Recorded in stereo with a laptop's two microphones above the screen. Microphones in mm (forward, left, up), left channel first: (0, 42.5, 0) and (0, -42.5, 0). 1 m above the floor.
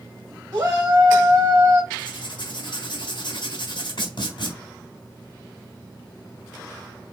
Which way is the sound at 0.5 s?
35° right (ahead or behind).